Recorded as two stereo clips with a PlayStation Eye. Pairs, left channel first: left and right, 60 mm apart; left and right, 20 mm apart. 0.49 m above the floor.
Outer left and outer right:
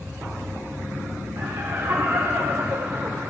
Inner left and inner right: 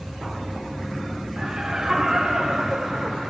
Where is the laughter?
65° right (ahead or behind), 2.5 m; by 3.3 s 30° right (ahead or behind), 1.3 m.